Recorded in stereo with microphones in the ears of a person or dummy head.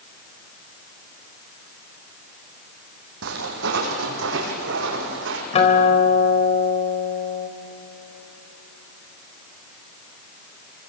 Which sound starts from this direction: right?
Footsteps, at 3.2 s.